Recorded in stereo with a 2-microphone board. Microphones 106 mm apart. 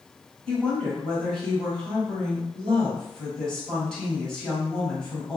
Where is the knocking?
No knocking in this recording.